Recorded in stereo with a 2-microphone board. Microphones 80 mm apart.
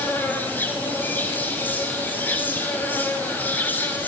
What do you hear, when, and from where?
0.0 s an insect: 25° left (ahead or behind), 5.5 m